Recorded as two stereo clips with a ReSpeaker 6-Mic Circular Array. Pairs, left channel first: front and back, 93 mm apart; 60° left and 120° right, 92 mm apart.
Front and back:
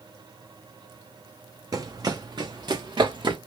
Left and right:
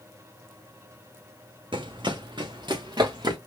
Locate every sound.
1.7 s running footsteps: 135° right, 0.7 m; by 3.4 s 155° right, 1.5 m